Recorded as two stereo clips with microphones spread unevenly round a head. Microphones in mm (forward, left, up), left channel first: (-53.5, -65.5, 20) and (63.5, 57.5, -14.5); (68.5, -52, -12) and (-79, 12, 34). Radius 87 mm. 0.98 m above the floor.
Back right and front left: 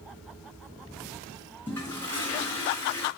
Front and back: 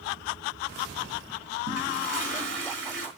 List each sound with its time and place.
1.7 s a toilet flushing: 150° left, 4 m